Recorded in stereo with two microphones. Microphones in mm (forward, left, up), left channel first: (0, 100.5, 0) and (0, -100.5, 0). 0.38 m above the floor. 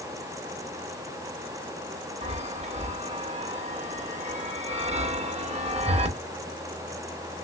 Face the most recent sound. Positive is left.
turn(degrees=-35)  # may be behind; listen again after turning